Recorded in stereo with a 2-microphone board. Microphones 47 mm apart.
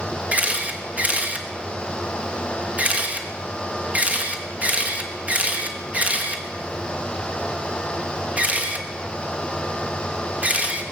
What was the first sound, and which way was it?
A camera shutter, 30° right (ahead or behind).